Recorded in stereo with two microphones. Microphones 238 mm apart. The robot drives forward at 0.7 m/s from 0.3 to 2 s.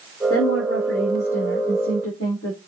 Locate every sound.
0.3 s a woman speaking: 65° left (ahead or behind), 6 m; by 2.6 s 60° left (ahead or behind), 6.5 m